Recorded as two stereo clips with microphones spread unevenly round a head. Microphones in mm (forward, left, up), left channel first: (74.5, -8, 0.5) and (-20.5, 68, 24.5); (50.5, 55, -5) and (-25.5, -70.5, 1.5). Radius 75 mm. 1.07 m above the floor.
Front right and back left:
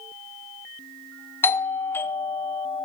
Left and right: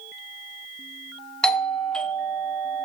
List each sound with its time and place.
1.4 s a doorbell: 15° right, 0.8 m